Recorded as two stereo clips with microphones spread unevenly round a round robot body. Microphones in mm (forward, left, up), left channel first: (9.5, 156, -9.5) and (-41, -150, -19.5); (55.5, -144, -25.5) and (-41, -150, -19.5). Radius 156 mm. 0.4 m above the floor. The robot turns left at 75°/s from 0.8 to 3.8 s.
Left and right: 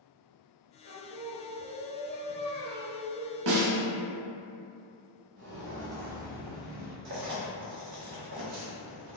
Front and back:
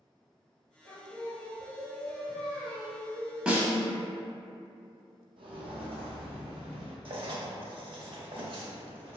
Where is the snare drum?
95° right, 0.7 m; by 3.7 s 115° right, 0.7 m.